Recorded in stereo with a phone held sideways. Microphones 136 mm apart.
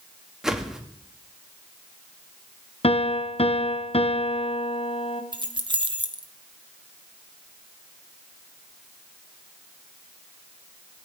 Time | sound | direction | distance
0.4 | a whoosh | 5° right (ahead or behind) | 1.2 m
2.8 | a piano | 45° left (ahead or behind) | 0.8 m
5.3 | keys jangling | 35° right (ahead or behind) | 1.2 m